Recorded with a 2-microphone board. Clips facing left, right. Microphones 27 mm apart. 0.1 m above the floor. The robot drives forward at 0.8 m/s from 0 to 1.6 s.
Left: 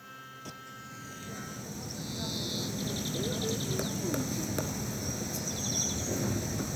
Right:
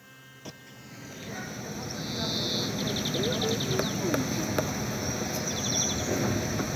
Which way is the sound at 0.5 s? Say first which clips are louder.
Right 3 dB; 20° right (ahead or behind).